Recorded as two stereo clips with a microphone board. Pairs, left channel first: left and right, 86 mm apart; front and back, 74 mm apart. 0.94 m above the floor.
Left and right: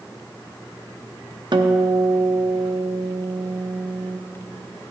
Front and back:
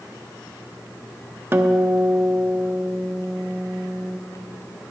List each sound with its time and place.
1.5 s a guitar: 120° right, 0.6 m